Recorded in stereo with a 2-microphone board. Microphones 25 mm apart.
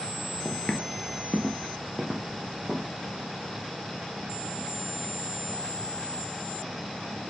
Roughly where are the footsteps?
Left.